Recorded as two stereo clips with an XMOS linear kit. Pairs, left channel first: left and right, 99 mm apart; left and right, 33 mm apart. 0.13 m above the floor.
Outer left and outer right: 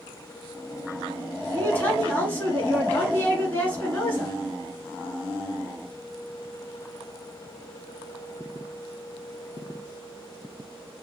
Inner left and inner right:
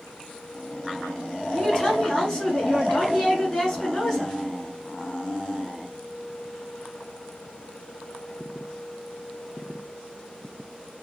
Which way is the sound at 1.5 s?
20° left (ahead or behind).